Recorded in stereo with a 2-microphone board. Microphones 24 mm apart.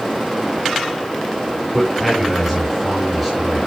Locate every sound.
1.7 s a man speaking: 5° right (ahead or behind), 4 m